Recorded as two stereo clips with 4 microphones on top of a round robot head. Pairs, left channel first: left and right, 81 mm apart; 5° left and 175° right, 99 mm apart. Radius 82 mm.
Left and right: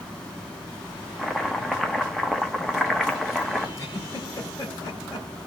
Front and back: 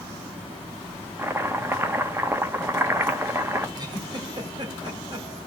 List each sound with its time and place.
1.2 s chopping: 175° left, 1.1 m
3.8 s a giggle: 145° left, 2.5 m